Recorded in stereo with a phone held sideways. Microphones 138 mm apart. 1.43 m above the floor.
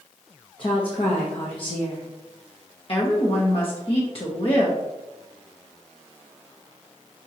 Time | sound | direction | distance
0.6 | a woman speaking | 40° left (ahead or behind) | 0.8 m
2.9 | a woman speaking | 45° left (ahead or behind) | 0.9 m